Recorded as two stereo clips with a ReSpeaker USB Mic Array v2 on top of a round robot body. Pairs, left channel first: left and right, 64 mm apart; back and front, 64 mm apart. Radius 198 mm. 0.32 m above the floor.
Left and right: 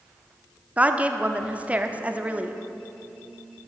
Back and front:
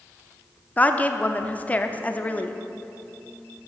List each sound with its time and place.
0.8 s a woman speaking: 140° right, 1.1 m